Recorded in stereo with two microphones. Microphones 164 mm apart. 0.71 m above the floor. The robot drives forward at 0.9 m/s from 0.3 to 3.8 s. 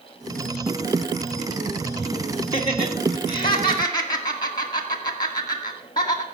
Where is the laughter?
35° left (ahead or behind), 1.3 m; by 6.2 s 25° left (ahead or behind), 1.8 m.